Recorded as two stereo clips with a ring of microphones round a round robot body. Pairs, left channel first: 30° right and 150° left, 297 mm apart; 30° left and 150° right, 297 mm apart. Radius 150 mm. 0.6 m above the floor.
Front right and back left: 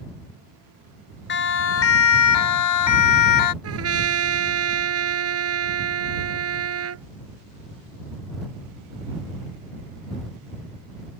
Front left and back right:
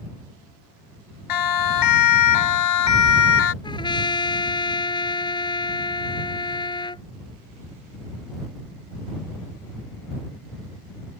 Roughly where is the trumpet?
Left.